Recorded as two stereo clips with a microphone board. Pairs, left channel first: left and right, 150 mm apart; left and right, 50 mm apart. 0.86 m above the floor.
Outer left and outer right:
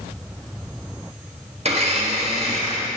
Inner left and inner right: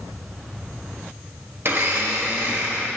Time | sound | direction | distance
1.6 | a blender | 45° right (ahead or behind) | 1.3 m